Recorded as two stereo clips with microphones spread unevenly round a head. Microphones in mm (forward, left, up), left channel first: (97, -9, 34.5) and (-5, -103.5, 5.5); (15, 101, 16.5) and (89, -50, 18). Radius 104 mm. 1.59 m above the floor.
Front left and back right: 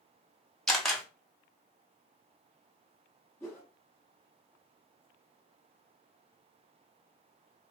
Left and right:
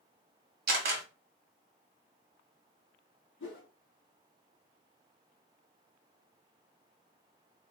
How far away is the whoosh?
About 1.0 m.